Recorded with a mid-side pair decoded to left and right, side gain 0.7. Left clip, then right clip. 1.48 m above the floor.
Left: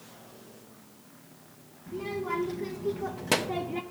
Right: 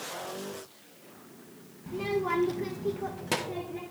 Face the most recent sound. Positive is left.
turn(degrees=55)